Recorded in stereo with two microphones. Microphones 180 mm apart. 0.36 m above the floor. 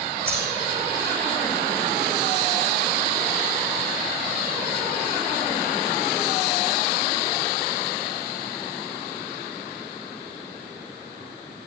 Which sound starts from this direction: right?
A dropped coin, at 0.3 s.